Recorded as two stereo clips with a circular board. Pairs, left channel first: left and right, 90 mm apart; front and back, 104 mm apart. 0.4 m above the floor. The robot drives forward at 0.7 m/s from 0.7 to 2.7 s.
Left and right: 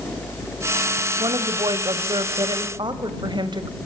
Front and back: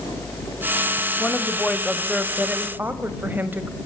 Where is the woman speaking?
75° right, 1.9 m; by 3.7 s 110° right, 1.9 m.